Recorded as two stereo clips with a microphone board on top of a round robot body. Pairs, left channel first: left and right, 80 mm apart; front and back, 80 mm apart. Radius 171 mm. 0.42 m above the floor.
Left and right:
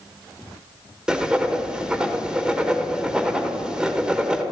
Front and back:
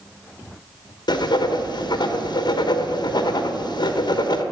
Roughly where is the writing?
Ahead.